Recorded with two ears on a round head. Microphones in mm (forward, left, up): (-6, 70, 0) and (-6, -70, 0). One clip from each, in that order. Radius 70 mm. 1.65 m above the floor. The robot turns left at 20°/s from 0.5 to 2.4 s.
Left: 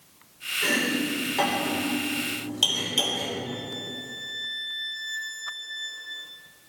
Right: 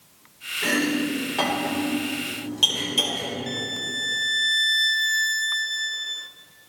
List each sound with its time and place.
0.6 s chopping: 15° right (ahead or behind), 3.5 m; by 3.3 s 20° left (ahead or behind), 3.5 m
3.5 s a violin: 45° right (ahead or behind), 0.5 m